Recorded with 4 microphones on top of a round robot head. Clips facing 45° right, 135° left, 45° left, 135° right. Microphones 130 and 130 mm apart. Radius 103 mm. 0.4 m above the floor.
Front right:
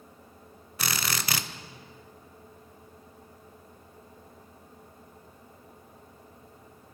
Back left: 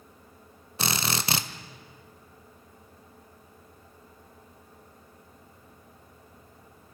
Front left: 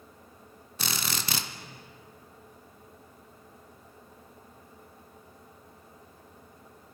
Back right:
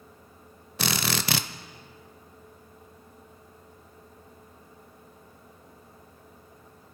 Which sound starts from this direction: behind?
A drill, at 0.8 s.